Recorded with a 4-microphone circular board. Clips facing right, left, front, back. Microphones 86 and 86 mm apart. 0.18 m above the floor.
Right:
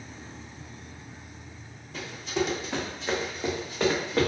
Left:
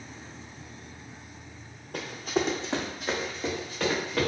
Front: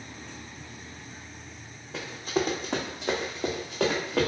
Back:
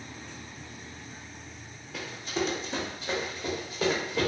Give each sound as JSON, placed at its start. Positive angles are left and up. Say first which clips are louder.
{"t": 1.9, "sound": "running footsteps", "louder": "left 1 dB, front 4 dB", "azimuth_deg": 60, "distance_m": 0.8}